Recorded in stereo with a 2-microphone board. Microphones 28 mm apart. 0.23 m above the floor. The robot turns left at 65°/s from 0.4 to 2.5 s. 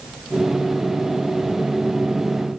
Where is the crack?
I don't hear a crack.